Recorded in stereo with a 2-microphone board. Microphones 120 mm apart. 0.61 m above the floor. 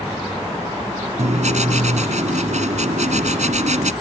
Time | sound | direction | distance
1.2 | writing | 75° right (ahead or behind) | ?